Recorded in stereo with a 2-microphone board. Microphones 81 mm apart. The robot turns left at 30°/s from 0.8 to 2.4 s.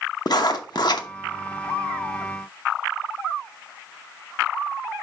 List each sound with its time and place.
0.3 s writing: 60° left (ahead or behind), 0.8 m; by 1.1 s 70° left (ahead or behind), 0.8 m